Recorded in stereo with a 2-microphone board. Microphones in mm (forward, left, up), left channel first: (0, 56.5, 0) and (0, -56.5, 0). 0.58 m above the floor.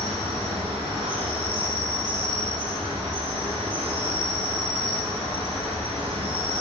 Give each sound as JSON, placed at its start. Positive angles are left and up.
{"t": 0.0, "sound": "an insect", "side_deg": -70, "distance_m": 1.2}